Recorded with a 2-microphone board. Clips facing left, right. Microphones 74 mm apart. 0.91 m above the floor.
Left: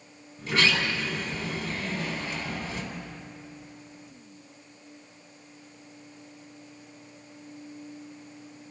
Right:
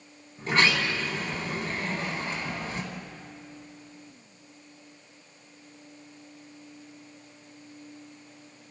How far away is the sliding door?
About 4 m.